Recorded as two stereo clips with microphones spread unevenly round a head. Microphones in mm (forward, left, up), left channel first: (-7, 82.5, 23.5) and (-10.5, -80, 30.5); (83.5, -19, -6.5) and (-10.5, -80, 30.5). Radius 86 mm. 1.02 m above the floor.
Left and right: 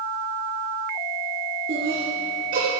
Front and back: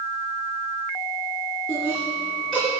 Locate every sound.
1.7 s laughter: 50° right, 3.5 m